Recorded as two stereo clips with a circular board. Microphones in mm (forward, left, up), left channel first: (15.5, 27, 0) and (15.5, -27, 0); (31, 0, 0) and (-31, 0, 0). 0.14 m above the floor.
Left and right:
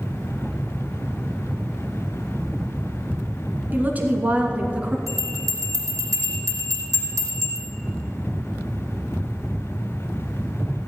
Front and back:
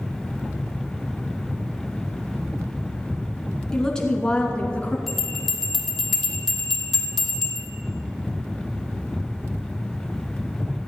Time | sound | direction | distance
3.7 | a woman speaking | 75° right | 1.9 m
5.1 | a bell | 85° right | 2.5 m